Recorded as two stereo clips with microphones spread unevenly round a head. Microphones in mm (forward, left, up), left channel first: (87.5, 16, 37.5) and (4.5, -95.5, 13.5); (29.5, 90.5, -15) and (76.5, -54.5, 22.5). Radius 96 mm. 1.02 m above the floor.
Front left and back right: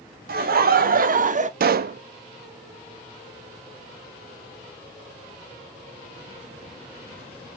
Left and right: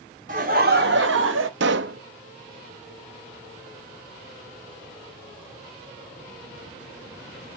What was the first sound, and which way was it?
Laughter, 130° right.